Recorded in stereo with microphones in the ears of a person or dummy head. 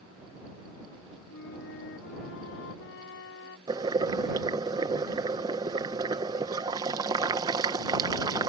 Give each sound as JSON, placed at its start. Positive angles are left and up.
{"t": 1.3, "sound": "a flute", "side_deg": 80}
{"t": 3.7, "sound": "boiling", "side_deg": -20}